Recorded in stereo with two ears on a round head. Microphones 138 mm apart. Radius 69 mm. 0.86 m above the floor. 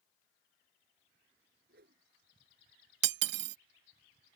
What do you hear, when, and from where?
1.7 s a whoosh: 70° right (ahead or behind)
3.0 s cutlery clinking: 80° right